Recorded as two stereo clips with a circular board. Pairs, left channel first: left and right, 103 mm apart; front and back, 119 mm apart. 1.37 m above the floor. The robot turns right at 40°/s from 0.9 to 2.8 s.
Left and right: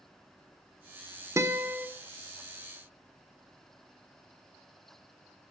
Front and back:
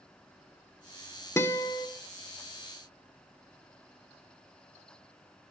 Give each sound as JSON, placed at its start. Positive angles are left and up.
{"t": 1.4, "sound": "a guitar", "azimuth_deg": -50, "distance_m": 1.1}